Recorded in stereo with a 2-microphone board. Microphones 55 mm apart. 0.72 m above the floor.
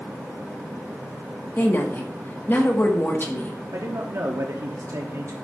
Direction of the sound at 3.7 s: 60° right (ahead or behind).